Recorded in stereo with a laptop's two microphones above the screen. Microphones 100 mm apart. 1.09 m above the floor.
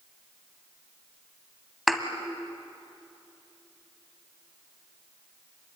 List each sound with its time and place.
1.9 s a thud: centre (ahead or behind), 1.6 m